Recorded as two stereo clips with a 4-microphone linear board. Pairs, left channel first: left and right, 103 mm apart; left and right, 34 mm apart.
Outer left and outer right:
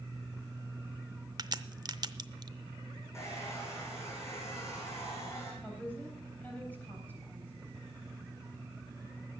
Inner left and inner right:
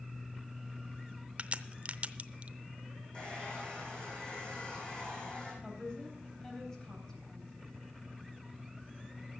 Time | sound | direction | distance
1.4 | a crack | 40° right (ahead or behind) | 0.6 m
3.1 | a hair dryer | 25° left (ahead or behind) | 4 m
5.6 | a woman speaking | 15° left (ahead or behind) | 3.5 m